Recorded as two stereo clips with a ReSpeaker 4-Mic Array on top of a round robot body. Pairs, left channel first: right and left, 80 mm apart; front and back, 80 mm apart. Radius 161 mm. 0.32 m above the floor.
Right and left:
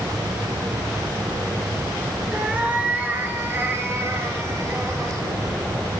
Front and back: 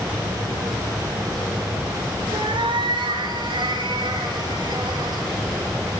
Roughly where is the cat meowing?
Behind.